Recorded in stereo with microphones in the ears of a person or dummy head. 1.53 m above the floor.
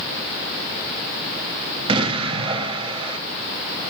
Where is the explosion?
30° right (ahead or behind), 0.7 m.